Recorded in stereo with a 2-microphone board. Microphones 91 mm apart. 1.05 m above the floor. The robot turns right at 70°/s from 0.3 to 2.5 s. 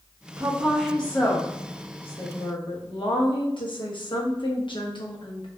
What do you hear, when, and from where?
0.4 s a woman speaking: 35° right, 0.9 m; by 5.5 s 115° left, 0.9 m